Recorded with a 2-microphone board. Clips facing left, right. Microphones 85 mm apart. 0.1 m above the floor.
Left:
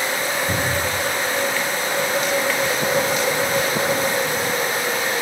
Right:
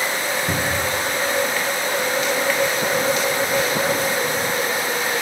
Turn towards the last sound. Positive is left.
turn(degrees=-70)  # may be behind; listen again after turning